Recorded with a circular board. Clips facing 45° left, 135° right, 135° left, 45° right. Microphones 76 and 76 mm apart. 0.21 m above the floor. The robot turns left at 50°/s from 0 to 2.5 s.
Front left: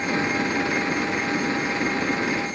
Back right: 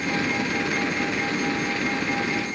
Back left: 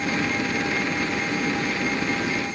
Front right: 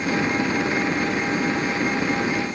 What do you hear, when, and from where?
Only background noise.